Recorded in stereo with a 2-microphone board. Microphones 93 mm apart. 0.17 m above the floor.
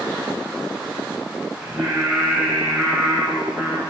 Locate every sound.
1.6 s singing: 15° right (ahead or behind), 0.8 m